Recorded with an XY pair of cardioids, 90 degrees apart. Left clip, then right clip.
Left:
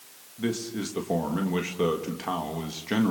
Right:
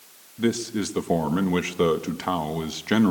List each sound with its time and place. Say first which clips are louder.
0.4 s a man speaking: right 5 dB; 45° right, 1.9 m